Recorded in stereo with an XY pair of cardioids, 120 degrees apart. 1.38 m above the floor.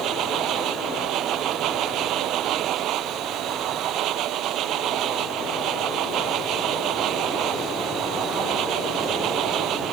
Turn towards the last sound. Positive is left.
turn(degrees=-70)